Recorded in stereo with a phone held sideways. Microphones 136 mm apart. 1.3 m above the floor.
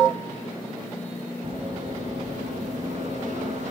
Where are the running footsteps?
45° right (ahead or behind), 2.5 m; by 3.7 s 55° right (ahead or behind), 2.5 m.